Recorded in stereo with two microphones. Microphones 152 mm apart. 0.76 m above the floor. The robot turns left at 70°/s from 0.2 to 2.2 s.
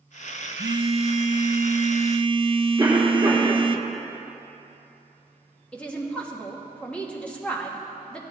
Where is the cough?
20° right (ahead or behind), 2.5 m.